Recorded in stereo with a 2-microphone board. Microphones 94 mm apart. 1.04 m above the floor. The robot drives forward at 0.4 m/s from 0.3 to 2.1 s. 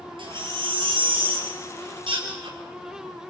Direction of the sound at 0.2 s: 55° right (ahead or behind).